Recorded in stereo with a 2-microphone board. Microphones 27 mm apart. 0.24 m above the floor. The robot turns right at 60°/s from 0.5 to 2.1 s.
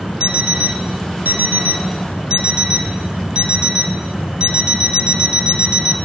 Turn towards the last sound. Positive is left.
turn(degrees=-40)